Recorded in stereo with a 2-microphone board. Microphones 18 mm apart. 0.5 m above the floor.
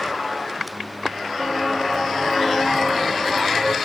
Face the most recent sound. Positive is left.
turn(degrees=-5)  # may be behind; listen again after turning